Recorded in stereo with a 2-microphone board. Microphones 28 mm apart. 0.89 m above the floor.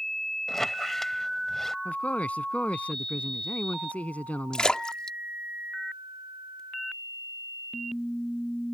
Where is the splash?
35° left (ahead or behind).